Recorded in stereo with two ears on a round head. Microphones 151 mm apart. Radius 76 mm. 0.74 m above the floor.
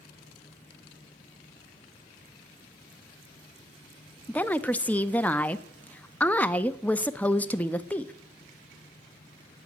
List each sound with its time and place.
4.3 s a woman speaking: 10° left (ahead or behind), 0.5 m